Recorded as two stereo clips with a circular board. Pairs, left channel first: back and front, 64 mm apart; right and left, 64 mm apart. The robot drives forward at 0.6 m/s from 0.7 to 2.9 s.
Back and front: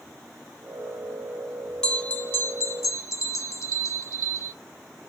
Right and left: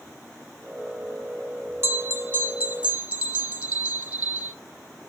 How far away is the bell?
About 0.6 m.